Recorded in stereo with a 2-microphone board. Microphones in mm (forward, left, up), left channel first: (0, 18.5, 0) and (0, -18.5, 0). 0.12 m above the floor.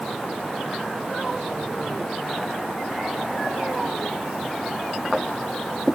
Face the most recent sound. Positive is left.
No sound to turn to.